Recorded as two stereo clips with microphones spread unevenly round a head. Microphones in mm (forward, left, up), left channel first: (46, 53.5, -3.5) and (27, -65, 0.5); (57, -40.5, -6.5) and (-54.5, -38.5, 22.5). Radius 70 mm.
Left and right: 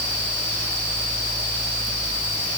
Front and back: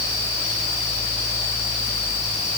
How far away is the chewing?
No chewing in this recording.